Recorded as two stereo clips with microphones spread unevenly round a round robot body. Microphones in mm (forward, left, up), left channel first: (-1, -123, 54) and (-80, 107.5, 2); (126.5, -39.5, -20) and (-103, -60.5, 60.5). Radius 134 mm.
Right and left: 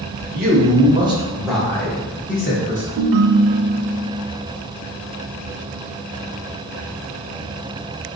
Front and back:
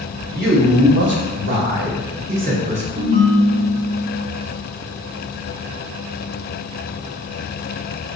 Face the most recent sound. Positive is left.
turn(degrees=105)